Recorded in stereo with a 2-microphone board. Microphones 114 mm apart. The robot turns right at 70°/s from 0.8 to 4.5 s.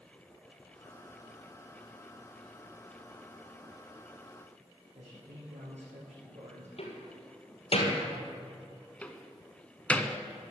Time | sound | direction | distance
5.0 | a man speaking | 75° right (ahead or behind) | 7 m
6.8 | a door slam | 60° left (ahead or behind) | 2.5 m
9.0 | a door slam | 10° left (ahead or behind) | 0.9 m